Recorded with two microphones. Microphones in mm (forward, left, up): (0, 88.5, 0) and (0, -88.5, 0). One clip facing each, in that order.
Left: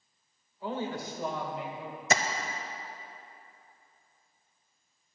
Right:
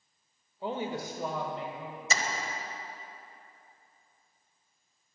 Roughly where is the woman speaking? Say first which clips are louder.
Even; right.